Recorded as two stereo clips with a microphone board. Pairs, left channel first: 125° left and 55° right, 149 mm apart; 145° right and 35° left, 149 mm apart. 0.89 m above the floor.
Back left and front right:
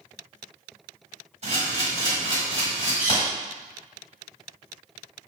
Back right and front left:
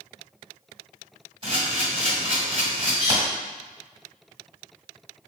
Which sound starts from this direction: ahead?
A camera shutter, at 1.4 s.